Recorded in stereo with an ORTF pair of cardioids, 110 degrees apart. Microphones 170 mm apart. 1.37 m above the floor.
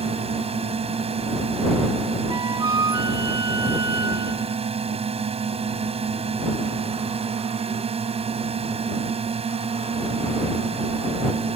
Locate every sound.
0.0 s a drone: 35° right
2.3 s a flute: 20° right